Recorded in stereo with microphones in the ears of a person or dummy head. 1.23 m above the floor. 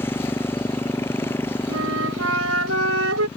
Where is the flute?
90° right.